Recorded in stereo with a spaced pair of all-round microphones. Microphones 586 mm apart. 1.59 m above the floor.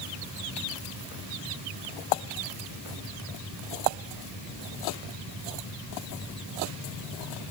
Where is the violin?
I don't hear a violin.